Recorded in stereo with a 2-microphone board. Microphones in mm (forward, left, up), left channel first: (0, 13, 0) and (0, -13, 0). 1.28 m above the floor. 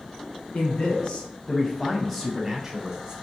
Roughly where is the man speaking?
Left.